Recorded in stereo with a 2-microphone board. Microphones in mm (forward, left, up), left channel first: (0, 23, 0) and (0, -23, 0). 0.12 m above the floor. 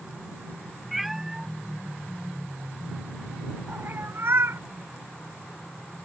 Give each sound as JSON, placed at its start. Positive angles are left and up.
{"t": 0.9, "sound": "a cat meowing", "side_deg": 0}